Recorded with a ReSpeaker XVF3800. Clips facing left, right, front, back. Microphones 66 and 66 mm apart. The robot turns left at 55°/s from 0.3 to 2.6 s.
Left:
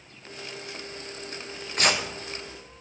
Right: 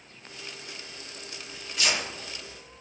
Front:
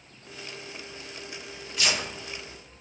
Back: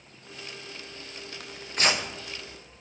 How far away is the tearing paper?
About 0.6 m.